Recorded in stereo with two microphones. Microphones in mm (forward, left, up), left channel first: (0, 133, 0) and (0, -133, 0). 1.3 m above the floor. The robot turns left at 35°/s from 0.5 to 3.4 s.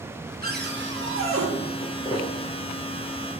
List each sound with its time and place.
0.4 s a cupboard door: 45° right, 0.8 m; by 1.5 s 80° right, 0.8 m
1.8 s footsteps: 25° left (ahead or behind), 1.5 m; by 2.3 s 15° left (ahead or behind), 1.5 m